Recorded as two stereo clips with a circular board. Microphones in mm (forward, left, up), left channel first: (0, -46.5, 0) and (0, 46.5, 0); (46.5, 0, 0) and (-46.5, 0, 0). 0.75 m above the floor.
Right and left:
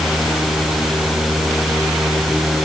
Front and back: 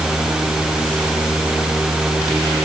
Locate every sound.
Only background noise.